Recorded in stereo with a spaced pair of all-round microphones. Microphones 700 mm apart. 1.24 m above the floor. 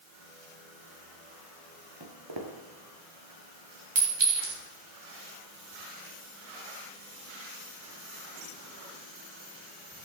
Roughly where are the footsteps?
Right.